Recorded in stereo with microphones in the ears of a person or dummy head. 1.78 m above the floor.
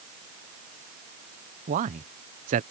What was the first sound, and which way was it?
A man speaking, 35° right (ahead or behind).